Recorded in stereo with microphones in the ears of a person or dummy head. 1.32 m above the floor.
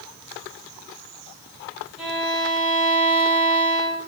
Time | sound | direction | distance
2.0 | a violin | 10° right (ahead or behind) | 1.9 m